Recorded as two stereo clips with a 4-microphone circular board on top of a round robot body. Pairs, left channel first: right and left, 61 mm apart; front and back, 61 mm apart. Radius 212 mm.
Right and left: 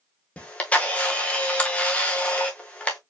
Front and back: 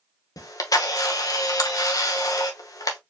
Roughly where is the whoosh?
No whoosh in this recording.